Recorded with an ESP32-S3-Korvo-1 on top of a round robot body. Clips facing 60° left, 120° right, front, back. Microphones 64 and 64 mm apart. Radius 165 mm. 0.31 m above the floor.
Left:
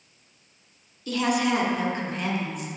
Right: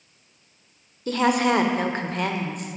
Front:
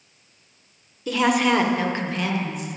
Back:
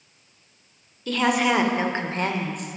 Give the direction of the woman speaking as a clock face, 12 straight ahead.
3 o'clock.